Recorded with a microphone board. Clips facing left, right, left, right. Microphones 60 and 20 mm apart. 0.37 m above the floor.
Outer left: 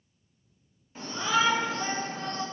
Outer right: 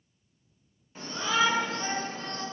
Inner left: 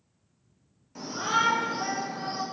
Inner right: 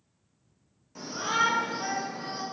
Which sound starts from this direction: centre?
A shout, at 0.9 s.